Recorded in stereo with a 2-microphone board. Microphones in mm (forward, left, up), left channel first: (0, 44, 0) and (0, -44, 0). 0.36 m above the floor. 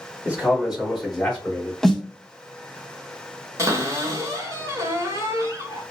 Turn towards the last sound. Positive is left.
turn(degrees=-35)  # may be behind; listen again after turning